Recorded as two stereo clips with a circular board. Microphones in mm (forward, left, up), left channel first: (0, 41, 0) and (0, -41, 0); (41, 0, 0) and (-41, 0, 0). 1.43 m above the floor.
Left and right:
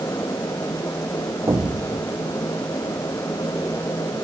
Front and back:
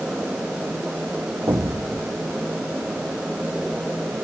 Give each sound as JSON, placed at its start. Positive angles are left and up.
{"t": 1.5, "sound": "an explosion", "azimuth_deg": -130}